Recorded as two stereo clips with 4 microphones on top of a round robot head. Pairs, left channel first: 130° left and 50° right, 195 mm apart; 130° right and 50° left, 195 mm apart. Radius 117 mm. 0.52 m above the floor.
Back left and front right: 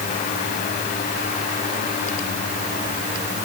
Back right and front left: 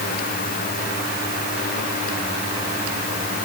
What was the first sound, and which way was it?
Only background noise.